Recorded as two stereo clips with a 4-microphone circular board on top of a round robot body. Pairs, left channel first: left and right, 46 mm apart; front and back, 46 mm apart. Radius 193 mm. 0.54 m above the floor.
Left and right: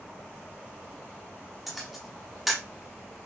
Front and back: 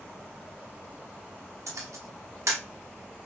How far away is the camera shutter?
About 0.8 m.